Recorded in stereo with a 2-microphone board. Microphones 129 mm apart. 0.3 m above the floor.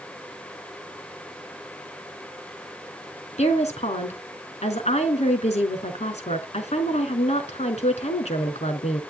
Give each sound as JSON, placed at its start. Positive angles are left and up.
{"t": 3.4, "sound": "a woman speaking", "side_deg": 60, "distance_m": 3.5}